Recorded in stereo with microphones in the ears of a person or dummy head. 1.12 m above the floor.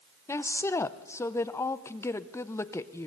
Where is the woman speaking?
10° left (ahead or behind), 0.8 m.